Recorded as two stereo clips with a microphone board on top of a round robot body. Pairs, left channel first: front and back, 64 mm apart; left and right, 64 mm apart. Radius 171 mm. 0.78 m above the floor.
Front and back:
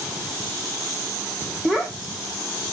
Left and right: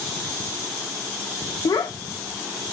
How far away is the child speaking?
About 1.3 m.